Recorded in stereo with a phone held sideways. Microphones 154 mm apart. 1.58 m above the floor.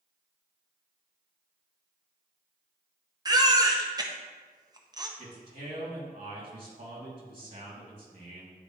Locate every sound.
3.2 s a baby crying: 25° right (ahead or behind), 0.7 m
5.2 s a man speaking: 60° right (ahead or behind), 2.5 m